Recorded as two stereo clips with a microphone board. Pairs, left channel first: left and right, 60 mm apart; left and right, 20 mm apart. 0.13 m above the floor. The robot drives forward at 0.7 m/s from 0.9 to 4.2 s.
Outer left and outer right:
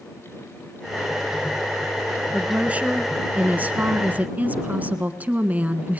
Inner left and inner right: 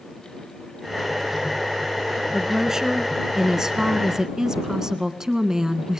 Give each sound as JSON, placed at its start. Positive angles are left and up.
{"t": 2.3, "sound": "a woman speaking", "side_deg": -20, "distance_m": 2.0}